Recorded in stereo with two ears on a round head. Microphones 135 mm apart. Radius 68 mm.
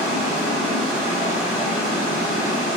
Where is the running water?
55° right (ahead or behind), 1.9 m.